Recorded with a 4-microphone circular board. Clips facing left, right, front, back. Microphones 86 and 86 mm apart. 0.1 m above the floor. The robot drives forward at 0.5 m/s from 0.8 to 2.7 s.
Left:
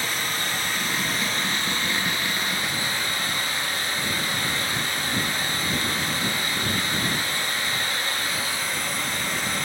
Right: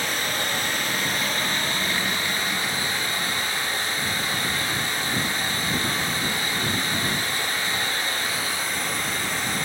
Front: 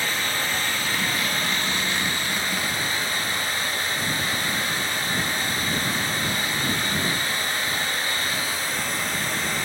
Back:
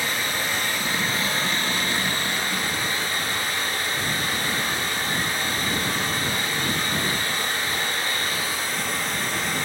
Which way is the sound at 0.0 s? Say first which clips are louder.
Right 1 dB, even; 105° right.